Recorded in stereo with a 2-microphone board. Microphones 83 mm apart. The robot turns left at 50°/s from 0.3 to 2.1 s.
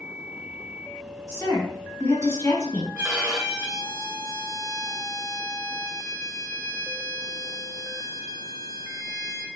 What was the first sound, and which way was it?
A woman speaking, 95° left.